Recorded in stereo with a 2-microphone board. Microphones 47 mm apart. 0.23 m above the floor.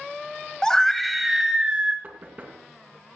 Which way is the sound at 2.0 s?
40° right (ahead or behind).